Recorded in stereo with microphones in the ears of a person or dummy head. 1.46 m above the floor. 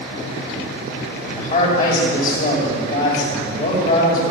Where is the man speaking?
55° left (ahead or behind), 5.5 m.